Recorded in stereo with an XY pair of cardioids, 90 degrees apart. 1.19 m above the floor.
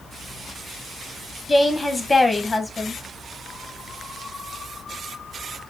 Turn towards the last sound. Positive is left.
turn(degrees=15)